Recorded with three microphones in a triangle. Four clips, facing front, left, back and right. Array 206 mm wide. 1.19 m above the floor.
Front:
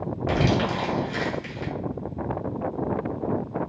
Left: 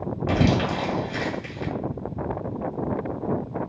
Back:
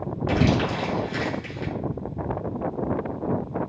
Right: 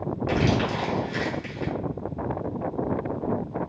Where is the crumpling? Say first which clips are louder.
Left 2 dB, back 1 dB; 50° left, 2 m.